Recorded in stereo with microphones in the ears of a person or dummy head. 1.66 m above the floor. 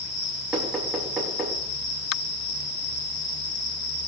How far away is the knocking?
About 3.5 m.